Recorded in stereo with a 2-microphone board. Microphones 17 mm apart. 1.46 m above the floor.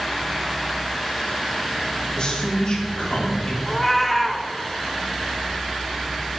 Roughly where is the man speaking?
Left.